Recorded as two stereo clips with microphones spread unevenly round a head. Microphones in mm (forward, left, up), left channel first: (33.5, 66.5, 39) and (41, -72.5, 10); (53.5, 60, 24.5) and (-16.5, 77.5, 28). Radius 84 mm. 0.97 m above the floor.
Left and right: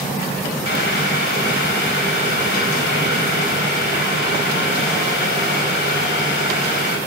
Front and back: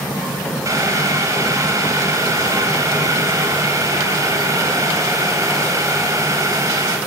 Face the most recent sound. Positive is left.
turn(degrees=125)